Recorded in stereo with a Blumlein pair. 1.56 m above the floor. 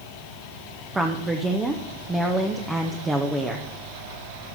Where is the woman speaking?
10° right, 1.0 m.